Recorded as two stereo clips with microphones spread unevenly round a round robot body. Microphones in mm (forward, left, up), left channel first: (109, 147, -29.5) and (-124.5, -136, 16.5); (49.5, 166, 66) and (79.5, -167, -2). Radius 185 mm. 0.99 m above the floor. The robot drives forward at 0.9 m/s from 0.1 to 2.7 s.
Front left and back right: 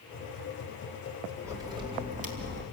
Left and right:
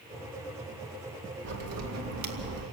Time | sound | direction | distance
1.4 | a crack | 45° right | 3 m